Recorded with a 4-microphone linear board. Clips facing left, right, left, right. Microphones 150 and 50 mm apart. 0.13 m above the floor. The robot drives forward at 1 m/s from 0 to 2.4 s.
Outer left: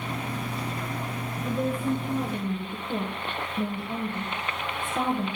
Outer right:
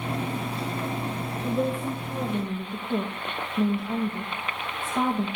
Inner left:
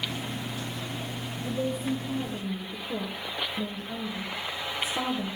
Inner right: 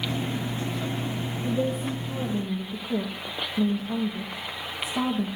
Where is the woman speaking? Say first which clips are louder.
Even, inner right 2 dB; 5° right (ahead or behind), 1.4 m.